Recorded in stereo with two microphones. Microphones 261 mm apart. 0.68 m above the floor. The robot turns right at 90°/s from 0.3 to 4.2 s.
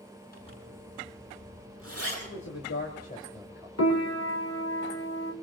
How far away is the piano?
About 1.7 m.